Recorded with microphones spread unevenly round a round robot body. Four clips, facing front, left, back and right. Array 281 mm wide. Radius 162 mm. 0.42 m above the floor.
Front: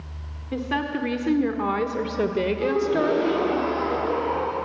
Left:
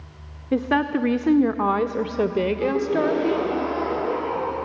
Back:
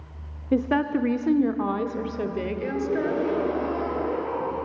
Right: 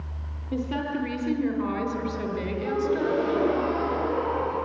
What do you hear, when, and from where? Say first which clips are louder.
0.5 s a woman speaking: left 7 dB, back 4 dB; 135° left, 1.0 m; by 3.5 s 50° left, 1.9 m
2.6 s a gasp: even, front 3 dB; 55° left, 8.5 m